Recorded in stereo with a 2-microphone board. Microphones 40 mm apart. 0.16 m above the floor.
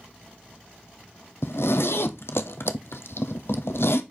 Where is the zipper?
75° left (ahead or behind), 1.1 m.